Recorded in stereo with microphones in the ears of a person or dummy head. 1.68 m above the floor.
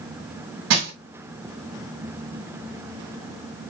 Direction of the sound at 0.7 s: 65° right (ahead or behind).